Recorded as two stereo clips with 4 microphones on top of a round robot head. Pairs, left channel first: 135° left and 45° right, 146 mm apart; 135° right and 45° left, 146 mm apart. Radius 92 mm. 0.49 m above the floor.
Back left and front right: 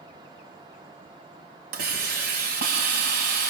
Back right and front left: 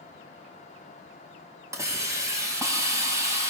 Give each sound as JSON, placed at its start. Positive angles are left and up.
{"t": 1.7, "sound": "a hiss", "azimuth_deg": -25, "distance_m": 3.0}